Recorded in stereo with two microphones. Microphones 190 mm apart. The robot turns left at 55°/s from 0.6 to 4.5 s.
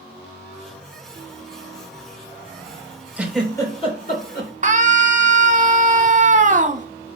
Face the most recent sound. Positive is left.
turn(degrees=-40)  # may be behind; listen again after turning